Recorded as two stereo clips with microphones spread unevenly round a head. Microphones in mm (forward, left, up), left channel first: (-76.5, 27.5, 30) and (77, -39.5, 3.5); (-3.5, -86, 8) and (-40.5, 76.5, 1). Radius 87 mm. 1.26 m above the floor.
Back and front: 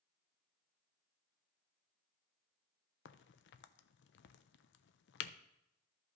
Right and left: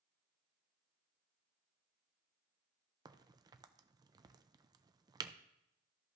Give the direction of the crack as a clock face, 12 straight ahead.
6 o'clock.